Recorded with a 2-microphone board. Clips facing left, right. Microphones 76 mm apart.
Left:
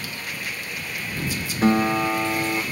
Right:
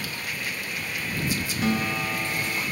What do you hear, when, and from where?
1.6 s a guitar: 35° left (ahead or behind)